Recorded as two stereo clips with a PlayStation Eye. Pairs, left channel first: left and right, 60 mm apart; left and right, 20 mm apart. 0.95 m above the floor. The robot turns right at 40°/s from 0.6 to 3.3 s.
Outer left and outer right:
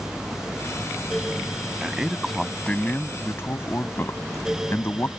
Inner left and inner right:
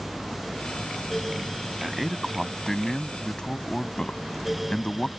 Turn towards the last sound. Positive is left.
turn(degrees=40)